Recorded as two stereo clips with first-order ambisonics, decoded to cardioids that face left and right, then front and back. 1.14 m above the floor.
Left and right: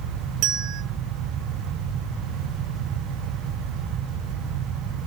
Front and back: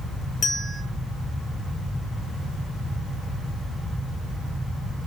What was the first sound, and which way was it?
A bell, 65° right.